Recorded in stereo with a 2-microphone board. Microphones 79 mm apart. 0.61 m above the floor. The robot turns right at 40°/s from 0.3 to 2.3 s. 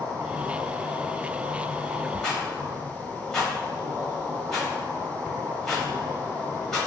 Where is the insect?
125° right, 1.2 m; by 6.9 s 45° right, 1.2 m.